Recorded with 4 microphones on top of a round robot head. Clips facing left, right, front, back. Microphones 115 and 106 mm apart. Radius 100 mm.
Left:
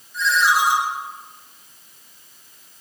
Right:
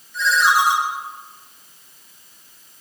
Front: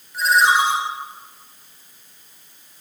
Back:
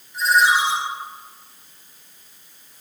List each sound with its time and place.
0.1 s a ringtone: 50° right, 3 m